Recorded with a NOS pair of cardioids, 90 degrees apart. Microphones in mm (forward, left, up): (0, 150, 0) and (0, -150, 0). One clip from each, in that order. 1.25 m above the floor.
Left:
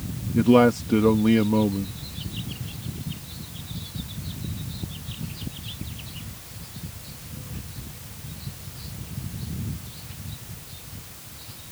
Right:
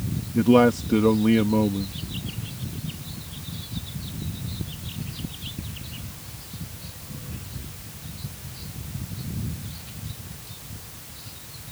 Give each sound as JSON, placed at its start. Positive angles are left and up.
{"t": 0.3, "sound": "a man speaking", "azimuth_deg": 5}